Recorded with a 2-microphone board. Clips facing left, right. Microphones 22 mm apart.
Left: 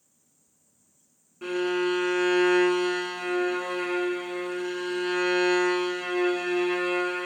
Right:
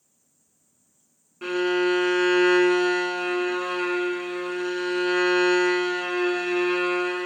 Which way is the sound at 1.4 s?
30° right (ahead or behind).